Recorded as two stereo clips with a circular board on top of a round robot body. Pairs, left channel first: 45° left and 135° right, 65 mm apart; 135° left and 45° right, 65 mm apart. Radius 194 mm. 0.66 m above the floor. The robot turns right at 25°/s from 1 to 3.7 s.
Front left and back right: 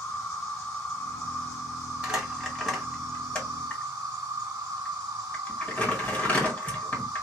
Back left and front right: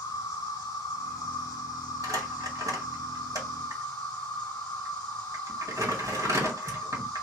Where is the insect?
115° left, 0.7 m; by 7.2 s straight behind, 0.7 m.